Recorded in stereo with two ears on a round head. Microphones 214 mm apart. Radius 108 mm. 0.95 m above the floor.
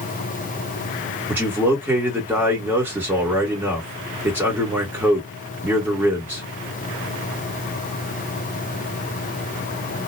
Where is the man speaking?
10° right (ahead or behind), 1.6 m.